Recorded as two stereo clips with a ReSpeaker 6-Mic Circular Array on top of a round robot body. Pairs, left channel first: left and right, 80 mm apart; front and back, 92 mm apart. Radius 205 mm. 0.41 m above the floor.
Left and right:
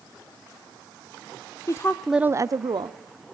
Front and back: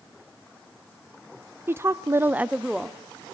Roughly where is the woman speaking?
Behind left.